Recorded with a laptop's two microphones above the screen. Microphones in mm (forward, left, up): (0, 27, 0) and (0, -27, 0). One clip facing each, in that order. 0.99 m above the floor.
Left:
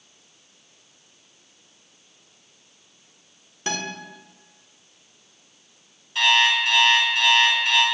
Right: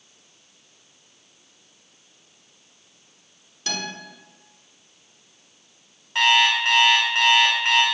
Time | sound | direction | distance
3.7 | a guitar | 30° left (ahead or behind) | 0.8 m
6.2 | an alarm clock | 65° right (ahead or behind) | 1.4 m